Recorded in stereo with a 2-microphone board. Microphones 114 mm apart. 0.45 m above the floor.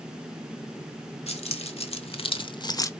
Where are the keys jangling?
65° left (ahead or behind), 1.5 m; by 2.9 s 25° left (ahead or behind), 0.6 m.